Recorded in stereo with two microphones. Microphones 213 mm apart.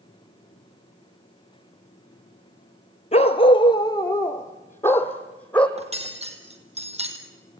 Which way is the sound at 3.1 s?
30° left (ahead or behind).